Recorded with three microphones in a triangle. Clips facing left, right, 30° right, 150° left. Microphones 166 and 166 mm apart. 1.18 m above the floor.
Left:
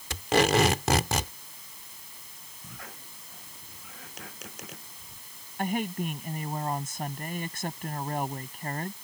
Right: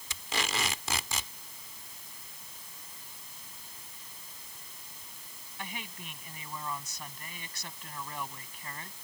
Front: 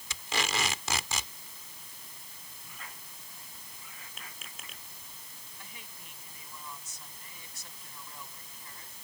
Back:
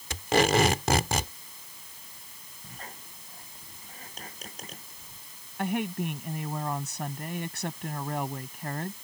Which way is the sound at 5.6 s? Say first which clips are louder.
Left 15 dB, back 27 dB; 130° left.